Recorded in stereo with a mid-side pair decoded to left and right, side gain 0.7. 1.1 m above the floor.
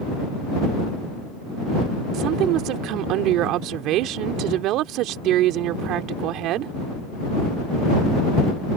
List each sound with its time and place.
2.1 s a woman speaking: 60° right